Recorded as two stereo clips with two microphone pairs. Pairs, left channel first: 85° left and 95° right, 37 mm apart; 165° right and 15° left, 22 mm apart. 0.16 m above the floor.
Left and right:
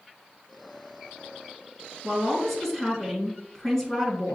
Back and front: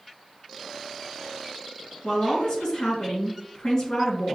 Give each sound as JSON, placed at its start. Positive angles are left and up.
{"t": 2.0, "sound": "a woman speaking", "azimuth_deg": 170, "distance_m": 1.8}